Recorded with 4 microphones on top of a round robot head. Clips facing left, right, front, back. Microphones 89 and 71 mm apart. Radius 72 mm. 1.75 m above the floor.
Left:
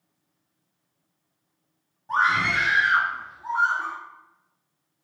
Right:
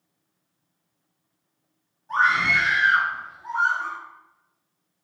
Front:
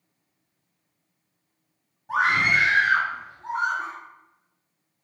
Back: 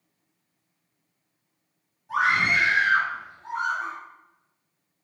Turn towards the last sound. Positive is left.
turn(degrees=40)